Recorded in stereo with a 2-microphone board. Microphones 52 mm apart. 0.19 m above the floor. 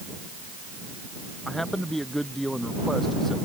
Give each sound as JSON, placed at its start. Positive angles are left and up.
{"t": 1.4, "sound": "a man speaking", "side_deg": 5}